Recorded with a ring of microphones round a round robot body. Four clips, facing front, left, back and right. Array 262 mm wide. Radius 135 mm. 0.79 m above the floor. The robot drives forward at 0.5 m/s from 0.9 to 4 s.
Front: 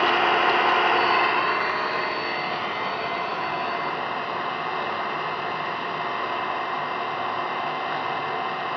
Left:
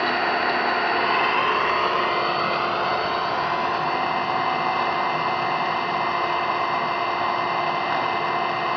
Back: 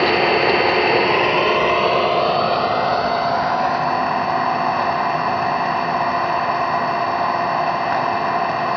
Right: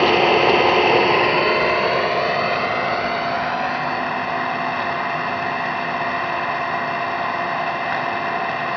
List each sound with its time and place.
0.0 s an engine running: 130° right, 0.9 m; by 8.8 s 165° right, 2 m